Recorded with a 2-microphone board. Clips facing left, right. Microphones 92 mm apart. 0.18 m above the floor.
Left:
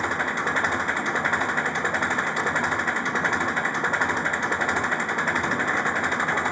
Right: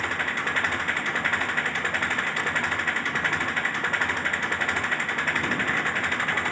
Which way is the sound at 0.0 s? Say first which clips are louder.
Left 3 dB; 20° left (ahead or behind).